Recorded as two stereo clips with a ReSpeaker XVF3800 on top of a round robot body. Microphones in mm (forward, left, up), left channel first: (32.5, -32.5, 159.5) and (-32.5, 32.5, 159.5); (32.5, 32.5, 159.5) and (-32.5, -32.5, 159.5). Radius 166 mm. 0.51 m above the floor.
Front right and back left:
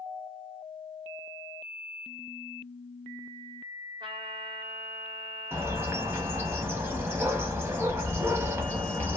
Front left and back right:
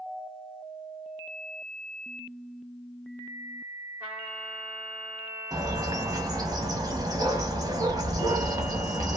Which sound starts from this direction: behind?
A bird, at 5.5 s.